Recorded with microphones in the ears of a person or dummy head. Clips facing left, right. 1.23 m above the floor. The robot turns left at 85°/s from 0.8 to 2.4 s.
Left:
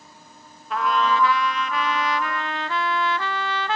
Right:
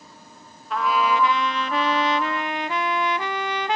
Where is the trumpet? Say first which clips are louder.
Even; centre (ahead or behind), 0.5 m; by 3.8 s 20° right (ahead or behind), 0.5 m.